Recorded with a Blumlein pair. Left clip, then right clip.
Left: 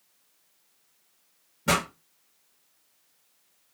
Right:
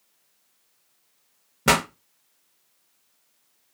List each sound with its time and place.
1.7 s a pop: 50° right, 0.8 m